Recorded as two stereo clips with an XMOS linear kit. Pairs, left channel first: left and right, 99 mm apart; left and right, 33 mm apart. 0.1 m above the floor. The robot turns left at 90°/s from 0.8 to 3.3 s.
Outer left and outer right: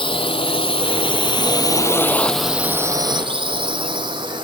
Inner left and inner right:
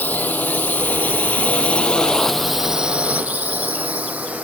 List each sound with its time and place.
0.0 s a drone: 60° left (ahead or behind); by 4.4 s 50° right (ahead or behind)